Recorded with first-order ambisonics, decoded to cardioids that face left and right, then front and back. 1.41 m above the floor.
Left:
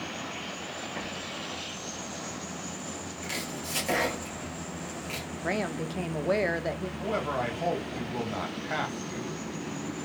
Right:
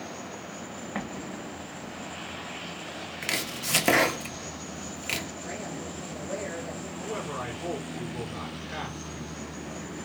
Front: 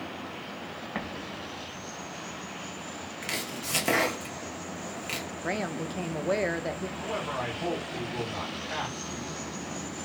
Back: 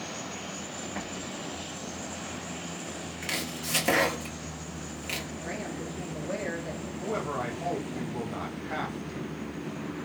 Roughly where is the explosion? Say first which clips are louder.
Left 1 dB, front 1 dB; ahead right.